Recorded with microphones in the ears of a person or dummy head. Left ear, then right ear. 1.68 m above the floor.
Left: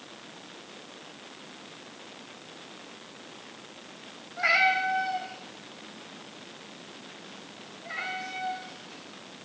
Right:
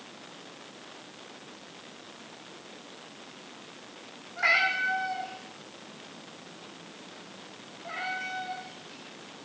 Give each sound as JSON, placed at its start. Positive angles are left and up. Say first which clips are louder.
{"t": 4.4, "sound": "a cat meowing", "louder": "left 1 dB", "side_deg": -50, "distance_m": 3.5}